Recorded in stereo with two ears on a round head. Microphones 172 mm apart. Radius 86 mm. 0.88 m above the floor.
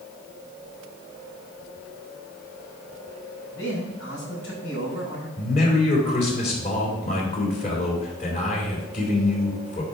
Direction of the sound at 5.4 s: 40° left (ahead or behind).